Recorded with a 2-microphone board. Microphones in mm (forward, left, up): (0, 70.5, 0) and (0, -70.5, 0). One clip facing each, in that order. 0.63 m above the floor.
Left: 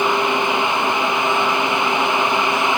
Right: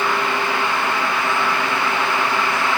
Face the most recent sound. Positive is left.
No sound to turn to.